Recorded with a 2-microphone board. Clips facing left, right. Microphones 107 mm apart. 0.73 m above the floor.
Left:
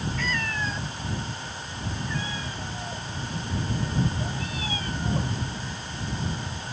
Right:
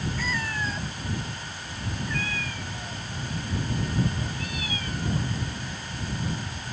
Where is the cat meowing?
10° right (ahead or behind); by 5.3 s 35° left (ahead or behind).